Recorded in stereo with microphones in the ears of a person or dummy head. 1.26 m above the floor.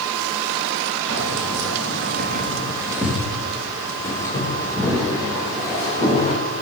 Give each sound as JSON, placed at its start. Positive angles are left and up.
{"t": 1.1, "sound": "keys jangling", "side_deg": -70, "distance_m": 1.6}